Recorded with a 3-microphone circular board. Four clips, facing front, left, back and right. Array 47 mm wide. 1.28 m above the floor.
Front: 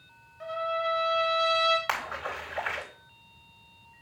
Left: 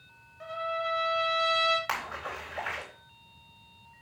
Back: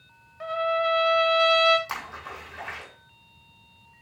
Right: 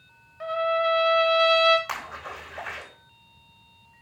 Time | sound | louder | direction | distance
0.4 | a trumpet | right 9 dB, back 5 dB | 125° right | 1.4 m
1.9 | a splash | even, front 4 dB | 10° left | 4.5 m